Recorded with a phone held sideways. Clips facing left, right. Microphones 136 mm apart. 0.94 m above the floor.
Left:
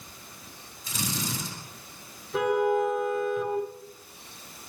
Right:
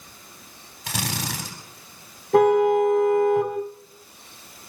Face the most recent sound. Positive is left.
turn(degrees=-70)  # may be behind; listen again after turning